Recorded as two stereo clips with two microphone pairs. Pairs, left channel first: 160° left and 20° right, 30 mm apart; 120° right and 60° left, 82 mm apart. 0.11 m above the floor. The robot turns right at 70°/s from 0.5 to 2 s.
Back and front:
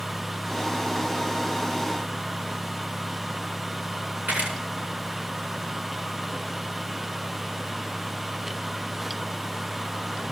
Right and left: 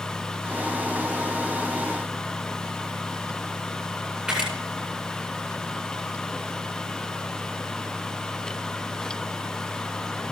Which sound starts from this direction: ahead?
A camera shutter, at 4.3 s.